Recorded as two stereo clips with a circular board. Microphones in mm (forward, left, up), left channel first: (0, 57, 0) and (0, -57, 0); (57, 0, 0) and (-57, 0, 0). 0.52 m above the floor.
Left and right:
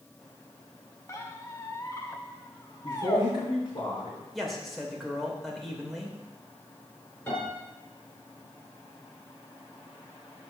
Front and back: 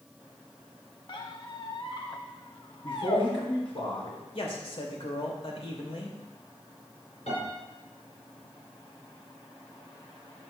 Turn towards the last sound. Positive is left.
turn(degrees=20)